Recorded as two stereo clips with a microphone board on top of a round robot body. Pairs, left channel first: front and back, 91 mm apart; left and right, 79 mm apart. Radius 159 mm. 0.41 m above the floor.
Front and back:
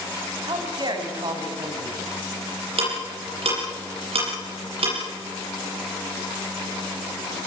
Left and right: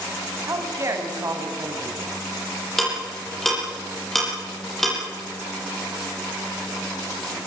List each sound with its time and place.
0.5 s a man speaking: 140° right, 4.5 m
2.8 s ticking: 175° left, 9 m